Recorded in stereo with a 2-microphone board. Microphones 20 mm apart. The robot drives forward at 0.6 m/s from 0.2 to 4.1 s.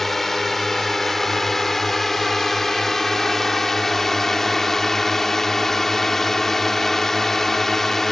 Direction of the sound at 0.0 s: 15° left (ahead or behind).